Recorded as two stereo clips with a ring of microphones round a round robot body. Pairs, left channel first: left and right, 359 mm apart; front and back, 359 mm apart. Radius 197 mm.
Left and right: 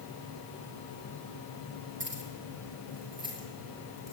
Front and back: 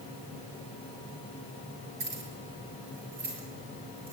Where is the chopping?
I don't hear chopping.